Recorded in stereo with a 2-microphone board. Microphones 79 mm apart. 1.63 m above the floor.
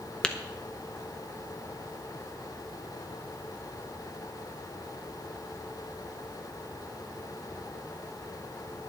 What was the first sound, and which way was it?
Tapping, 15° left (ahead or behind).